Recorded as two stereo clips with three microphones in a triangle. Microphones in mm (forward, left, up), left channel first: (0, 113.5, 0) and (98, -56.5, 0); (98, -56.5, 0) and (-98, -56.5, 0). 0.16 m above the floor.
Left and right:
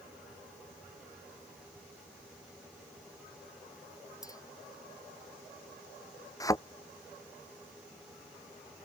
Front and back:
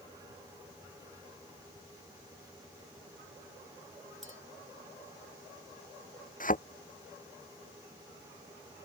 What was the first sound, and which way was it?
A clink, 170° right.